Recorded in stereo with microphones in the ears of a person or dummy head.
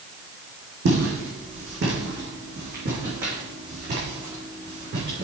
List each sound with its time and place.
0.8 s footsteps: 60° right (ahead or behind), 3 m; by 5.2 s 50° right (ahead or behind), 5 m